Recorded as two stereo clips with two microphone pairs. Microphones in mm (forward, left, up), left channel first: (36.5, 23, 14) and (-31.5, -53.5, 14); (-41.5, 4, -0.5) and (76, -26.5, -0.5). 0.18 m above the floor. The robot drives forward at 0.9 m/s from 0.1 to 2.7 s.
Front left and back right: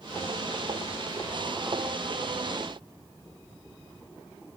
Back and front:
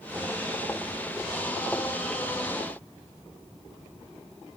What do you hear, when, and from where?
Only background noise.